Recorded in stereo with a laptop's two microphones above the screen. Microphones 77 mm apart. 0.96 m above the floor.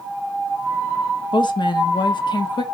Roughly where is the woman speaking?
Left.